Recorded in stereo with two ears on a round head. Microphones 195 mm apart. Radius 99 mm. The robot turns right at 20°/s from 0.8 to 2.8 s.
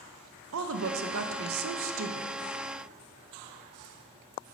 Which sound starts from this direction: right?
A woman speaking, at 0.5 s.